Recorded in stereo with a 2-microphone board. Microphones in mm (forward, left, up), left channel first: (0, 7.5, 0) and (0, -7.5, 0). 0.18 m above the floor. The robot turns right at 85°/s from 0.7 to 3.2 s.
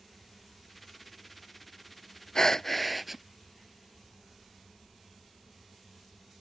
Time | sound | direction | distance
2.4 | breathing | 130° left | ?